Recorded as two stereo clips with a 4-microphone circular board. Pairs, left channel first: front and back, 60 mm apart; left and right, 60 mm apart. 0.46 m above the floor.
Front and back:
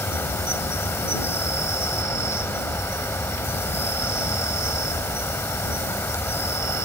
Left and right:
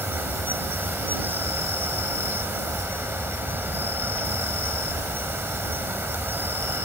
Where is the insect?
40° right.